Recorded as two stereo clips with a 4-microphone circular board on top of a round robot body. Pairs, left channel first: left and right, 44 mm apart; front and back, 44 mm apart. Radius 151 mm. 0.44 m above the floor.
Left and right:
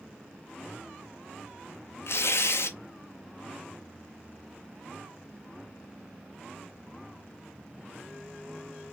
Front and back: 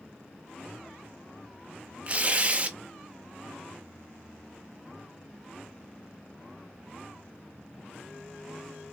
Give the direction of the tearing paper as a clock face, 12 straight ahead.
8 o'clock.